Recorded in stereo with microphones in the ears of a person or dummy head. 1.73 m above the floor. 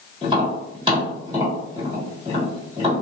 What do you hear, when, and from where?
0.2 s tapping: 30° right (ahead or behind), 1.7 m